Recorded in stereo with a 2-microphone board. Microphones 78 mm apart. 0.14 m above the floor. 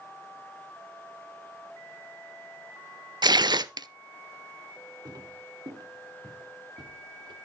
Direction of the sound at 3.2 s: 65° right (ahead or behind).